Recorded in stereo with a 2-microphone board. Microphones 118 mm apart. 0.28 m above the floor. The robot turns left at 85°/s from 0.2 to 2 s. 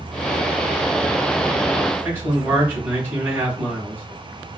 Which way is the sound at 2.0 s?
20° right (ahead or behind).